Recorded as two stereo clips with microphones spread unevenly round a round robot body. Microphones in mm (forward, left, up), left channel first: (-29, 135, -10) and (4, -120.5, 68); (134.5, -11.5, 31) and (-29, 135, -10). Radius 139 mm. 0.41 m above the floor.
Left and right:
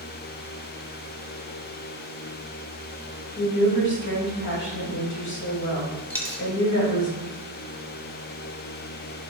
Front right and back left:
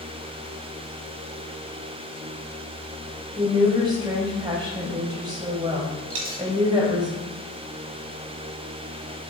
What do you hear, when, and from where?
3.4 s a woman speaking: 75° left, 2.0 m
6.1 s a dropped coin: 175° left, 1.2 m